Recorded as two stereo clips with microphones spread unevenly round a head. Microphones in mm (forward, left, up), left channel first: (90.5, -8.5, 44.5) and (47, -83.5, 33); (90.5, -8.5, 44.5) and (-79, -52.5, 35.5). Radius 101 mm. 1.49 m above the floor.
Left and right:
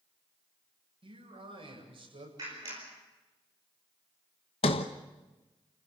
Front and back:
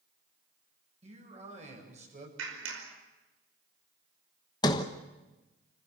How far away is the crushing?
I don't hear crushing.